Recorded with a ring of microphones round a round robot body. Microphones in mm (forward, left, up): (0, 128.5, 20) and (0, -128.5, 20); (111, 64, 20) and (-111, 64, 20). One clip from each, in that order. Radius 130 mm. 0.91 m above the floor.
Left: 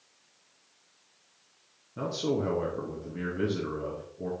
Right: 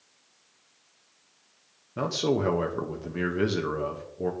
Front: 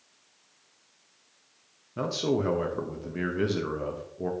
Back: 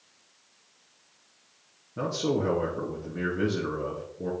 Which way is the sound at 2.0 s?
45° right.